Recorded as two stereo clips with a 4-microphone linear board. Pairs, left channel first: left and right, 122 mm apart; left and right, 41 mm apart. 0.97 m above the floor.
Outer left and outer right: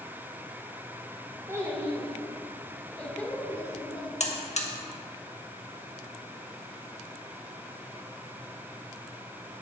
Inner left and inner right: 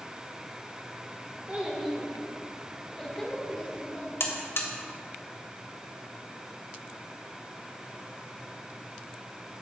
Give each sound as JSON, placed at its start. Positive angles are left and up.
{"t": 1.5, "sound": "a child speaking", "side_deg": -25, "distance_m": 1.8}
{"t": 4.2, "sound": "a buzzer", "side_deg": 65, "distance_m": 1.0}